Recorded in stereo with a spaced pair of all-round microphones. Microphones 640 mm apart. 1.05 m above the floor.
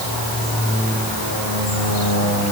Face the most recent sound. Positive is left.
No sound to turn to.